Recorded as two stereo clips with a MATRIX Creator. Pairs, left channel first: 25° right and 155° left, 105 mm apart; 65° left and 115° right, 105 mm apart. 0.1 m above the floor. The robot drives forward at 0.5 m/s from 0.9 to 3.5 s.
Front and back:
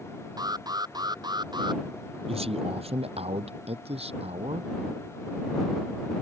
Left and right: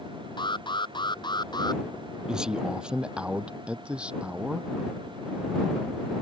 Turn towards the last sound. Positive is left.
turn(degrees=170)